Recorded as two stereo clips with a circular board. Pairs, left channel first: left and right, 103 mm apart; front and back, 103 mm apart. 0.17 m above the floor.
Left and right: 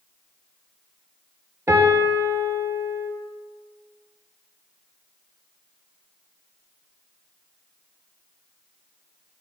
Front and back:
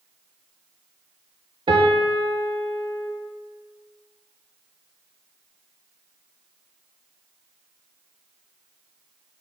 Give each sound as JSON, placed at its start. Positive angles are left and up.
{"t": 1.7, "sound": "a piano", "azimuth_deg": -150, "distance_m": 0.5}